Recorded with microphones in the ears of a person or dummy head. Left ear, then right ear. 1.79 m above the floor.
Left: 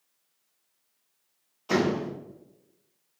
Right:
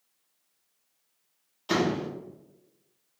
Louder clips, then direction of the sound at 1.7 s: Left 1 dB; 25° right (ahead or behind).